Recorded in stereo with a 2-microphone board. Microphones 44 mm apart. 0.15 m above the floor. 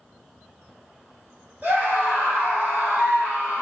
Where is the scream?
45° right (ahead or behind), 1.8 m.